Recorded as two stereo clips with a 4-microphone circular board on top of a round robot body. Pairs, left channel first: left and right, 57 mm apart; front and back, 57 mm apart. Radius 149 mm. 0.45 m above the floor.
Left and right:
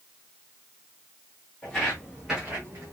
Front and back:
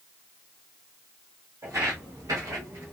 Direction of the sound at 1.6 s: 165° left.